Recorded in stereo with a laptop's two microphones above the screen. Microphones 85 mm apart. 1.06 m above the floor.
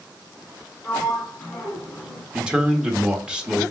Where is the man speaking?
10° right (ahead or behind), 1.2 m.